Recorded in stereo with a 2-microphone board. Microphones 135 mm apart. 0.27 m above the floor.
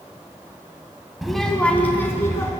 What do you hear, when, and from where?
1.2 s a child speaking: centre (ahead or behind), 0.8 m; by 2.5 s 20° left (ahead or behind), 1.5 m